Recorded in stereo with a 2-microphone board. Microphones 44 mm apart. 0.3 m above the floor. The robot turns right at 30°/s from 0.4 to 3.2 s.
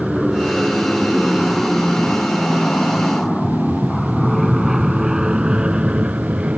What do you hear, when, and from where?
0.0 s an aircraft: centre (ahead or behind); by 6.6 s 30° right (ahead or behind)